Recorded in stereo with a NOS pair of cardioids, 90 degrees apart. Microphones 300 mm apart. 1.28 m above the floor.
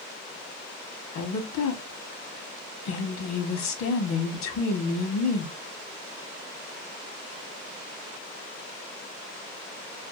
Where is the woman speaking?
65° left, 1.1 m.